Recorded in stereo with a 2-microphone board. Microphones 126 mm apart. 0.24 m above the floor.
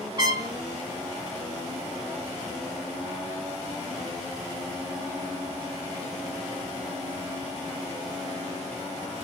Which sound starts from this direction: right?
A trumpet, at 0.2 s.